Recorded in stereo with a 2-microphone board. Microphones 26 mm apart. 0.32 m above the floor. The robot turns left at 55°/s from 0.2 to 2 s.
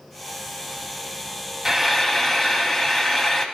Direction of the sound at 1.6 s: 5° right (ahead or behind).